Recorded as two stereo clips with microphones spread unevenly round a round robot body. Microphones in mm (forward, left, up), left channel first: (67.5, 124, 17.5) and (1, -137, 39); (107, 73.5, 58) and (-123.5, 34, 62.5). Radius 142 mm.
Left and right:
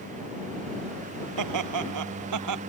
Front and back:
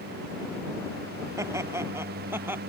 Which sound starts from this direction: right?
Laughter, at 1.4 s.